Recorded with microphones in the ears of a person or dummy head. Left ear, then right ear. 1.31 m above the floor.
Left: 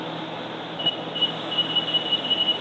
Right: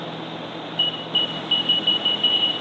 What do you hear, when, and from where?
0.8 s an alarm: 60° right (ahead or behind), 4.5 m